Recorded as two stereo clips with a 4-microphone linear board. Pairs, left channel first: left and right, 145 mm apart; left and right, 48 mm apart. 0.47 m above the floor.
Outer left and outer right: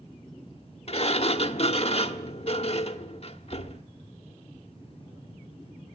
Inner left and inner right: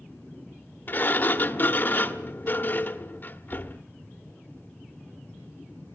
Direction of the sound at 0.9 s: 45° left (ahead or behind).